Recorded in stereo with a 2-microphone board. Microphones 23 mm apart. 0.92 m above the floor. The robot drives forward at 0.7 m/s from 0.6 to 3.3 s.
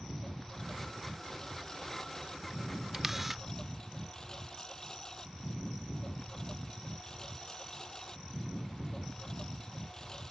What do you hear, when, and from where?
0.0 s a lawn mower: 25° left (ahead or behind); by 10.3 s 30° left (ahead or behind)
2.9 s a camera shutter: 20° right (ahead or behind); by 3.4 s 15° right (ahead or behind)